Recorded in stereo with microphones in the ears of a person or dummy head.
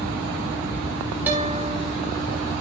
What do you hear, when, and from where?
1.3 s a guitar: 5° right (ahead or behind), 3 m